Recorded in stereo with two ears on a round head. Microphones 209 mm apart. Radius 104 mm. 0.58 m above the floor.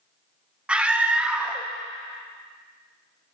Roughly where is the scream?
Centre.